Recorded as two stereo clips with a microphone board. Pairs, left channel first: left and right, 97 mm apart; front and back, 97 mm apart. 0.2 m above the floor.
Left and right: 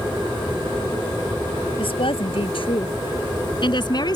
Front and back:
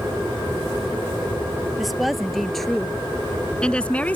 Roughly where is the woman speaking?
Left.